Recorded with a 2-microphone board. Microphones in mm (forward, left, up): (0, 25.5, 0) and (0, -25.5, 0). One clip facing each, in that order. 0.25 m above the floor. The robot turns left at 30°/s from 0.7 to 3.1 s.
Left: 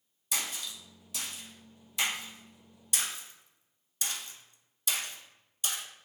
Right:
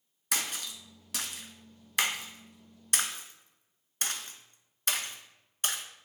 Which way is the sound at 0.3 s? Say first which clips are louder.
Right 2 dB; 60° right (ahead or behind).